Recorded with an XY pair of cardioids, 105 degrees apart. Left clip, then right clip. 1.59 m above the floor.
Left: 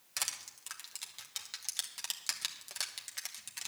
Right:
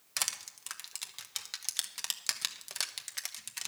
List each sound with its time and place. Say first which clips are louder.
0.2 s crushing: right 3 dB; 25° right, 1.1 m